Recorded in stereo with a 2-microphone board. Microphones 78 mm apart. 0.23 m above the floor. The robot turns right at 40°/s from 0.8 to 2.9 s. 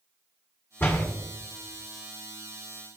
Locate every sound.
0.8 s a door slam: 25° left (ahead or behind), 1.7 m; by 1.1 s 35° left (ahead or behind), 1.7 m